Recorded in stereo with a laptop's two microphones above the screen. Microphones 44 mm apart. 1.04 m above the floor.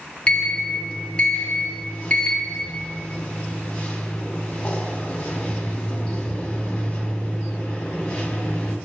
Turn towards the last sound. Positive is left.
turn(degrees=20)  # may be behind; listen again after turning